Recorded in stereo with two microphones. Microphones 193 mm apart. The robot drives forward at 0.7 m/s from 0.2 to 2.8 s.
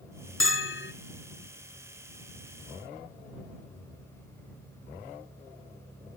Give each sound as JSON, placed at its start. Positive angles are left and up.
{"t": 0.4, "sound": "a bell", "side_deg": 75, "distance_m": 0.6}